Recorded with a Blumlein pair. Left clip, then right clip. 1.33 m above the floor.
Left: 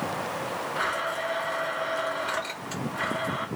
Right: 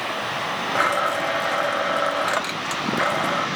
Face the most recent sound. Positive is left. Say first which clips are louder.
# right 8 dB
turn(degrees=-40)